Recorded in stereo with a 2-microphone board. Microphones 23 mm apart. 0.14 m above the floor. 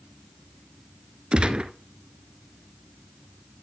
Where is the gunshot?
50° right (ahead or behind), 0.6 m.